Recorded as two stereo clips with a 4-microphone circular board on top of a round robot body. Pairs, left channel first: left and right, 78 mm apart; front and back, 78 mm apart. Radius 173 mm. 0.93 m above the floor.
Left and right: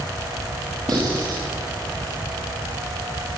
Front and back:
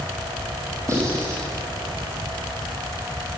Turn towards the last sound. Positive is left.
turn(degrees=-125)